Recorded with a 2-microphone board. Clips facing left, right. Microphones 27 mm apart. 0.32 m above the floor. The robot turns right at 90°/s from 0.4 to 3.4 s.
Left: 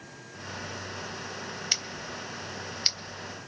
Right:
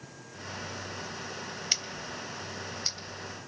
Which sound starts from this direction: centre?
Scissors, at 1.7 s.